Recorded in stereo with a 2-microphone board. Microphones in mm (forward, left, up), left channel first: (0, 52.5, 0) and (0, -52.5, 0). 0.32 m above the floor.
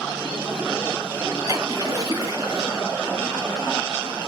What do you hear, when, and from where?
1.5 s a splash: 35° right (ahead or behind), 4.5 m